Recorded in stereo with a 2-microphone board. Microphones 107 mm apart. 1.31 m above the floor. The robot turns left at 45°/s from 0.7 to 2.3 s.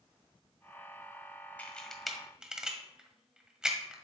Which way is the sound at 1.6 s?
15° left (ahead or behind).